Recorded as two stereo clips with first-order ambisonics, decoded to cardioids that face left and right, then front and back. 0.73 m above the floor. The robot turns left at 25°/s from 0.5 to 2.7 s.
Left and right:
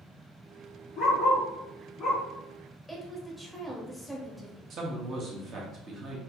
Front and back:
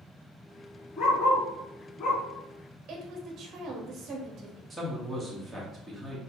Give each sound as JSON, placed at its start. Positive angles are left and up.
{"t": 1.0, "sound": "a dog barking", "azimuth_deg": 60, "distance_m": 1.7}
{"t": 2.9, "sound": "a woman speaking", "azimuth_deg": -175, "distance_m": 0.7}
{"t": 4.7, "sound": "a man speaking", "azimuth_deg": -95, "distance_m": 0.8}